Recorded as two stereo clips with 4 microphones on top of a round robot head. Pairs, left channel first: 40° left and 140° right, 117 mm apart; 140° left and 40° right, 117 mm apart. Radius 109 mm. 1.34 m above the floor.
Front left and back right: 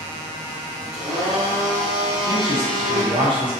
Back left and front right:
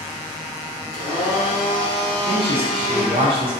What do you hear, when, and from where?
0.9 s a blender: 170° left, 0.6 m
2.3 s a man speaking: 85° right, 0.6 m